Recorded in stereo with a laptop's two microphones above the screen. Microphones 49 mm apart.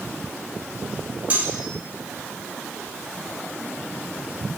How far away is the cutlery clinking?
About 1.6 m.